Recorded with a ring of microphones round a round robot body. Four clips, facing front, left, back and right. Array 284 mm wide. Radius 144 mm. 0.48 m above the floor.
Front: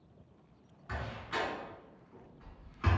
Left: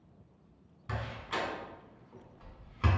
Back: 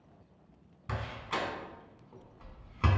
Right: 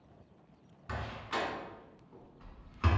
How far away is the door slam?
About 1.2 m.